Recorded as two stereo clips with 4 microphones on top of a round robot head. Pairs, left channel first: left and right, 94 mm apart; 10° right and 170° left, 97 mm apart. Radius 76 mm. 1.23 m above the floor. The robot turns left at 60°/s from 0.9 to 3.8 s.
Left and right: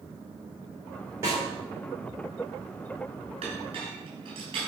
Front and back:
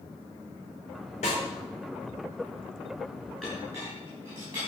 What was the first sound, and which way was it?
A snare drum, 20° right.